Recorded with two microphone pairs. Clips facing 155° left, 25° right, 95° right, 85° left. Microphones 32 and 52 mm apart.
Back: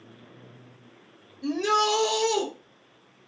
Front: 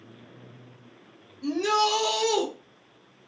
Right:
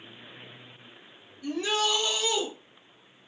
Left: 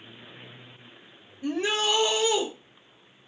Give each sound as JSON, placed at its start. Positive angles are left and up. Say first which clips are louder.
{"t": 1.4, "sound": "a shout", "louder": "even, left 2 dB", "azimuth_deg": 75, "distance_m": 0.8}